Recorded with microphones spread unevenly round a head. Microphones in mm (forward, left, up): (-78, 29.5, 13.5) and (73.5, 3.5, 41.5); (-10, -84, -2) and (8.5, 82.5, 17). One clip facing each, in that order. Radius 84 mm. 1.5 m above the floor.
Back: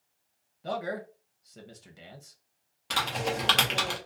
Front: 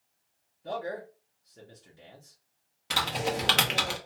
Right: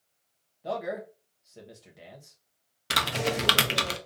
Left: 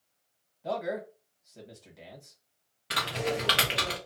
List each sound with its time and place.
0.6 s a man speaking: 175° left, 0.8 m
2.9 s typing on a keyboard: 100° right, 0.5 m